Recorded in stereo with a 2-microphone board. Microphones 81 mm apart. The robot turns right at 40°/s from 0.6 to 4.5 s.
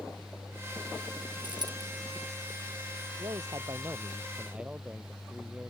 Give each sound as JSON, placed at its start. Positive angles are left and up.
{"t": 1.4, "sound": "a dropped coin", "side_deg": -70}
{"t": 3.2, "sound": "a man speaking", "azimuth_deg": -65}